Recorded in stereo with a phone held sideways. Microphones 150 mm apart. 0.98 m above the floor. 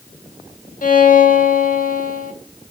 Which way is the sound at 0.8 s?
65° left (ahead or behind).